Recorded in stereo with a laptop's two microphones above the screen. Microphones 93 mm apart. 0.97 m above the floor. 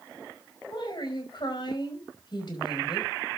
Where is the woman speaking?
50° left (ahead or behind), 5 m.